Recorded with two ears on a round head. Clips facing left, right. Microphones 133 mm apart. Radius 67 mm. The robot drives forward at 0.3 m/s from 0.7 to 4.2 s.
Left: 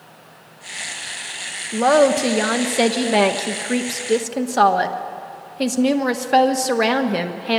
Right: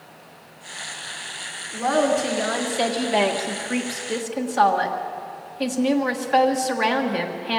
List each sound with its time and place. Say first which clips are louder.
1.7 s a woman speaking: left 6 dB; 80° left, 1.3 m; by 7.6 s 55° left (ahead or behind), 1.5 m